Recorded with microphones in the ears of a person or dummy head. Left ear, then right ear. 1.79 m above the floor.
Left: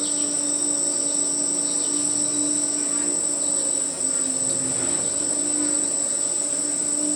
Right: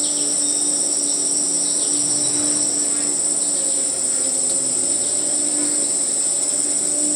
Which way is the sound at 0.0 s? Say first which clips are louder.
Right 4 dB; 25° right (ahead or behind).